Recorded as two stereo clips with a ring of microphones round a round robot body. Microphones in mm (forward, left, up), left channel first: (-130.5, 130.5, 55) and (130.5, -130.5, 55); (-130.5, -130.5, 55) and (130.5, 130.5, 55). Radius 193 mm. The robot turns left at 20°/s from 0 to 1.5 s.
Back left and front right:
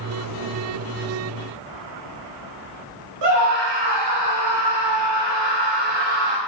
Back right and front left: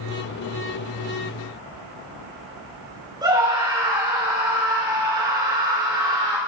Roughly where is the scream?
Ahead right.